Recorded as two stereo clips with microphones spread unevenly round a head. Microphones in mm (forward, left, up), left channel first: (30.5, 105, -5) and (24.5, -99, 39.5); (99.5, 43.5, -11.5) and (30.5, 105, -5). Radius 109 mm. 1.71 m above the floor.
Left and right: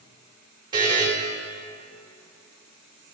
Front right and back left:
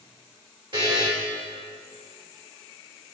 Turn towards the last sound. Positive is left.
turn(degrees=-160)